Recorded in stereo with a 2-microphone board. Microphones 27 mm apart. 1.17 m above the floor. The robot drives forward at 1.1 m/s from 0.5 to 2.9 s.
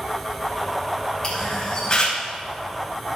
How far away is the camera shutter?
About 5 m.